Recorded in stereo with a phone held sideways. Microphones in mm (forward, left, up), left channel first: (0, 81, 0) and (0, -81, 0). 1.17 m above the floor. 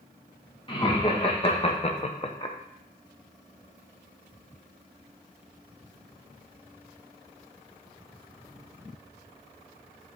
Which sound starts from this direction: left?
Laughter, at 0.7 s.